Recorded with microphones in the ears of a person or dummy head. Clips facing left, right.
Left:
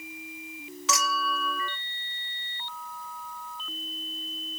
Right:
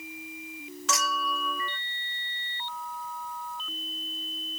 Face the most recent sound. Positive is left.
turn(degrees=5)  # may be behind; listen again after turning